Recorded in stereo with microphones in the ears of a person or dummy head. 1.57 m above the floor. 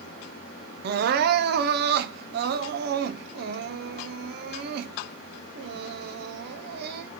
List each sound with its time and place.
0.8 s crying: 60° right (ahead or behind), 0.6 m